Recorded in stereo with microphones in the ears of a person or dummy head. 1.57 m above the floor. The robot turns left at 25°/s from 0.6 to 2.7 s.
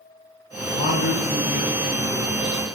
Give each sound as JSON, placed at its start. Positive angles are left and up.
{"t": 0.6, "sound": "a man speaking", "azimuth_deg": 110, "distance_m": 0.8}